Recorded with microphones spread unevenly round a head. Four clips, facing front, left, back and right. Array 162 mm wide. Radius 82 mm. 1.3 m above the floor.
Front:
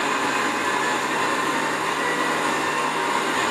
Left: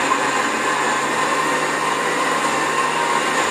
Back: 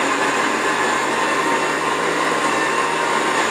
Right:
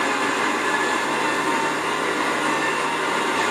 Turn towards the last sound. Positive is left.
turn(degrees=160)